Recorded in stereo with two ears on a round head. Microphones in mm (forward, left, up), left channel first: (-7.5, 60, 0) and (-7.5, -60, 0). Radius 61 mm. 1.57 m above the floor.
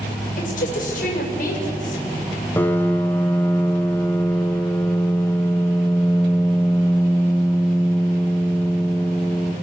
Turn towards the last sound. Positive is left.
turn(degrees=15)  # may be behind; listen again after turning